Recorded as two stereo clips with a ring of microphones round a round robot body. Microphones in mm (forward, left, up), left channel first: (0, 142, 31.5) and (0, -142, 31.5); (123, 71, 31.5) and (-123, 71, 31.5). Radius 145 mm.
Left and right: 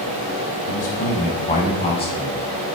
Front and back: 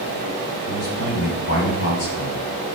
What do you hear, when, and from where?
0.7 s a man speaking: 30° left, 4 m; by 2.8 s 15° left, 5 m